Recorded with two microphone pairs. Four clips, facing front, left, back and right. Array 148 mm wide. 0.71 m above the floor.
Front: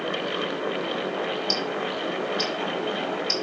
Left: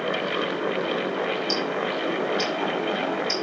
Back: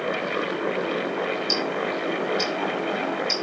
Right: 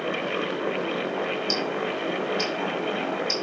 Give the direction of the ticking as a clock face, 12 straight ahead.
10 o'clock.